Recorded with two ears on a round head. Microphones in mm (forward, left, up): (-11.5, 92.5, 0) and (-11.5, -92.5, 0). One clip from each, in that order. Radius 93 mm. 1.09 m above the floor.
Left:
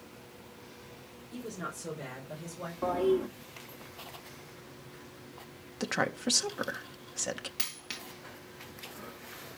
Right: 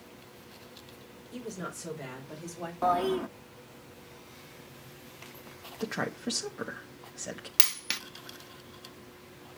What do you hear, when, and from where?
1.3 s a woman speaking: centre (ahead or behind), 4 m; by 2.7 s 10° right (ahead or behind), 5.5 m
2.8 s a toilet flushing: 40° right (ahead or behind), 0.8 m
5.8 s a woman speaking: 30° left (ahead or behind), 1.2 m
7.6 s a dropped coin: 40° right (ahead or behind), 0.6 m